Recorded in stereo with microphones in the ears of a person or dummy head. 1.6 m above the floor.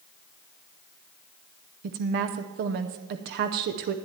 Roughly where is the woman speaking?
Right.